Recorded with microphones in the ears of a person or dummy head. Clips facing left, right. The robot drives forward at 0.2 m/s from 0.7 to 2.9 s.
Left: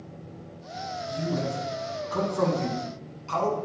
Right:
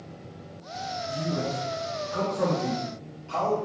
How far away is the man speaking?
About 0.8 m.